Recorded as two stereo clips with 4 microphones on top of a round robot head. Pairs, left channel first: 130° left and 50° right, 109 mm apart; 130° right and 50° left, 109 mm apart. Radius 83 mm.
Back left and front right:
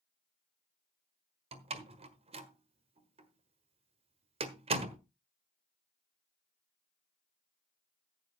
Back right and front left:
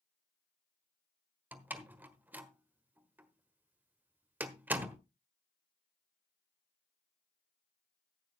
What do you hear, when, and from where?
1.5 s a door slam: 20° right, 1.4 m